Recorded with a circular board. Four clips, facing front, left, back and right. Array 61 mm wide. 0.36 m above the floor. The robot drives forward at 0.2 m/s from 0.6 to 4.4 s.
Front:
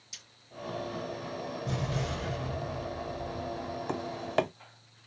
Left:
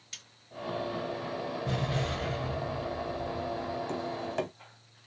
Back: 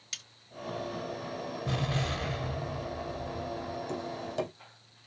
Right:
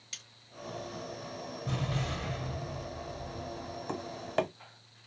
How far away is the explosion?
About 1.9 m.